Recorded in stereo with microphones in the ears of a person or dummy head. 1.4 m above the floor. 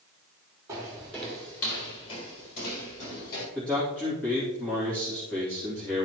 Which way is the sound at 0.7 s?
15° right (ahead or behind).